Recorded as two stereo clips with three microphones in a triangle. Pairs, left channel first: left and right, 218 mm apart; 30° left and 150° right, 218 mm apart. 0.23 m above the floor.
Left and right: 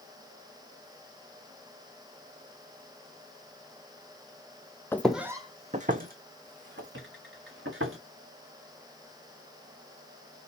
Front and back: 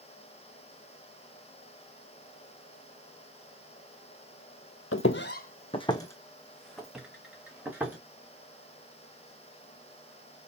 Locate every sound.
4.9 s footsteps: 15° left, 0.6 m; by 8.0 s 70° right, 2 m